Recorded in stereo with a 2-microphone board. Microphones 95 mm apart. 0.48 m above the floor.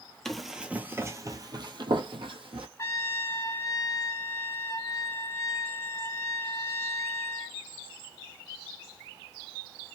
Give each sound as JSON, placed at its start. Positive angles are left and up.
{"t": 0.2, "sound": "running footsteps", "side_deg": 5, "distance_m": 0.7}
{"t": 2.8, "sound": "a trumpet", "side_deg": 30, "distance_m": 0.5}